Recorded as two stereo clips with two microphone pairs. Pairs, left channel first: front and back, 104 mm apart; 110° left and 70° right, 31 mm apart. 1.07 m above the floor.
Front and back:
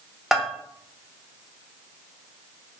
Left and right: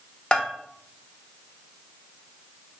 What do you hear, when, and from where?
0.3 s a bell: 95° left, 0.7 m